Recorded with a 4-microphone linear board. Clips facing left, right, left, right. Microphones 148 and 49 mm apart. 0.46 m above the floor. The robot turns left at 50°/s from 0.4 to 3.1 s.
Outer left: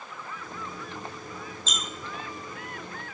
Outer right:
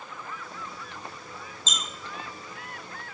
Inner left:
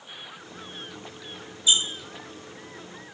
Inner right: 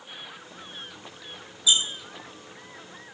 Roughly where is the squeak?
Left.